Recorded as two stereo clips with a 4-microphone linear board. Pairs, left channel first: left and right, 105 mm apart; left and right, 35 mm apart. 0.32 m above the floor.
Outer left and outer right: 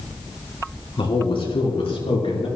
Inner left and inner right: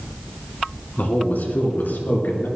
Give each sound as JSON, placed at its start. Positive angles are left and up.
{"t": 1.0, "sound": "a man speaking", "side_deg": 55, "distance_m": 2.5}